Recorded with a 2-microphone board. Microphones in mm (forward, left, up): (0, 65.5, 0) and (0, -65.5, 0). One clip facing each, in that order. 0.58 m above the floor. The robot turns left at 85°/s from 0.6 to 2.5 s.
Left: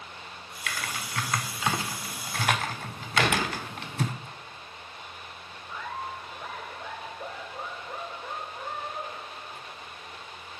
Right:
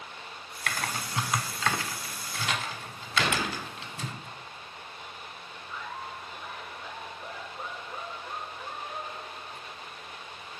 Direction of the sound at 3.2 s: 65° left (ahead or behind).